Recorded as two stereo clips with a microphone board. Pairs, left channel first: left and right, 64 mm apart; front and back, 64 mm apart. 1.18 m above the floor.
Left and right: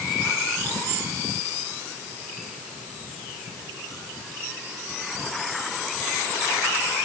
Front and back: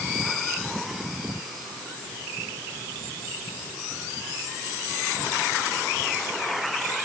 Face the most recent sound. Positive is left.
No sound to turn to.